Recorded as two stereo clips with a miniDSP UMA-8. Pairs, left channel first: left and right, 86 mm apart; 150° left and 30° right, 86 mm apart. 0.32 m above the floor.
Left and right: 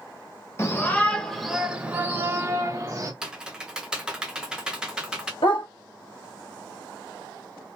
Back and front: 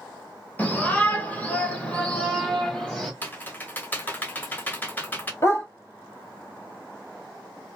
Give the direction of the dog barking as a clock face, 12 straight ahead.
9 o'clock.